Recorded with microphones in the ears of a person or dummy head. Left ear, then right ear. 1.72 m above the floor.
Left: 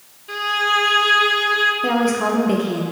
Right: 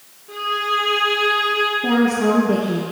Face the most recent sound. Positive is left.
turn(degrees=55)  # may be behind; listen again after turning